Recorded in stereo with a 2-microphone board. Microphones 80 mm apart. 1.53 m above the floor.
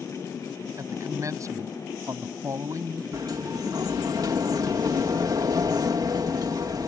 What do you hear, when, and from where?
0.8 s a man speaking: 40° right (ahead or behind)
3.1 s a sliding door: 55° right (ahead or behind)